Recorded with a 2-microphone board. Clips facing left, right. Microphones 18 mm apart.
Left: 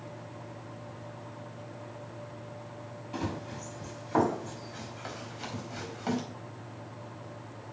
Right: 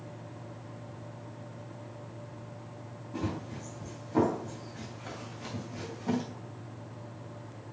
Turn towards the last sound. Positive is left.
turn(degrees=85)